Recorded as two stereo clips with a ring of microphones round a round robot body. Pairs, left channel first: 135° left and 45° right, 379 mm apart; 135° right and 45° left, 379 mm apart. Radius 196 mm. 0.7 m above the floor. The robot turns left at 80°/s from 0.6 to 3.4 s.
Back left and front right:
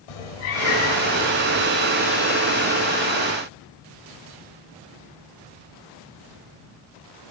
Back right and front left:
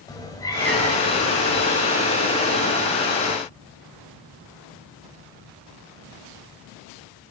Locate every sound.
0.1 s a cat meowing: 145° left, 1.9 m; by 1.7 s 60° left, 1.9 m